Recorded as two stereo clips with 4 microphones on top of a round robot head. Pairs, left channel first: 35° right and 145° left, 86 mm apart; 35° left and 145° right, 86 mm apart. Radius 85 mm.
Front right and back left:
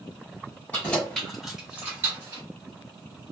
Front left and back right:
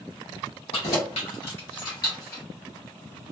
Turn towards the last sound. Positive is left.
turn(degrees=100)